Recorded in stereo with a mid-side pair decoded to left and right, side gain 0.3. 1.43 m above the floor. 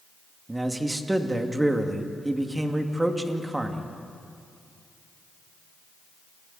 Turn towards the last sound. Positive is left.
turn(degrees=-20)